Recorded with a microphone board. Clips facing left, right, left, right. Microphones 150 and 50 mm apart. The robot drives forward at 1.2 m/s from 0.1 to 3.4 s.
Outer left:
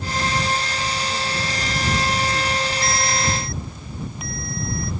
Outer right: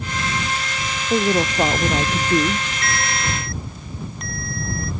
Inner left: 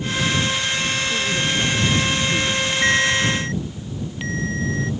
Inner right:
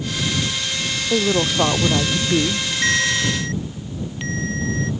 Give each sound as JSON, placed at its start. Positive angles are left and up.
{"t": 1.1, "sound": "a woman speaking", "side_deg": -80}
{"t": 2.8, "sound": "a ringtone", "side_deg": 5}